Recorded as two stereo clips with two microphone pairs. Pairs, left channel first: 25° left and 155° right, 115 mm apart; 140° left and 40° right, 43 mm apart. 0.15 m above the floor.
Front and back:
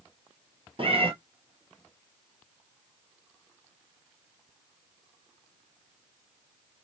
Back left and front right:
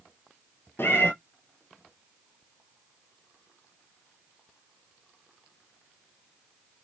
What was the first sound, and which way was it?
A cat meowing, 165° left.